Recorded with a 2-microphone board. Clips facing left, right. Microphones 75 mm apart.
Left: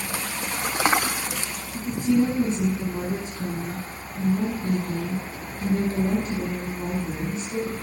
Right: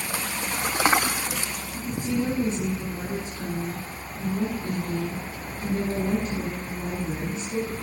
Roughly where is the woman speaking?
Left.